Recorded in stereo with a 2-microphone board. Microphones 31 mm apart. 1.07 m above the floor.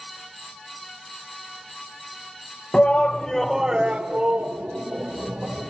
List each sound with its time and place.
2.7 s a shout: 40° left (ahead or behind), 1.1 m; by 5.7 s 65° right (ahead or behind), 2.5 m